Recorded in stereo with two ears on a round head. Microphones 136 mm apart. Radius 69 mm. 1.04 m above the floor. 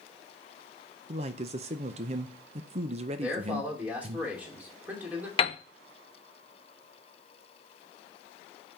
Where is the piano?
35° left (ahead or behind), 0.6 m.